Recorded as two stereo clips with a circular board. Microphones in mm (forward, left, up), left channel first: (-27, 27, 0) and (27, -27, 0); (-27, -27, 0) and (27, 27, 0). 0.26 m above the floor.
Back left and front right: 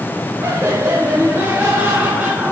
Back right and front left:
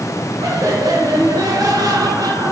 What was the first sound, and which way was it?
Laughter, 5° left.